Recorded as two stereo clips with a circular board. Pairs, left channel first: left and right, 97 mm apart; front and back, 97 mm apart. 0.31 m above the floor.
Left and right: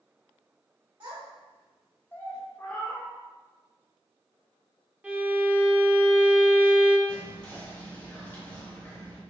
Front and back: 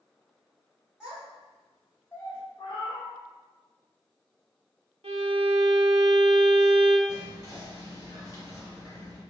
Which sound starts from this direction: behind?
A violin, at 5.0 s.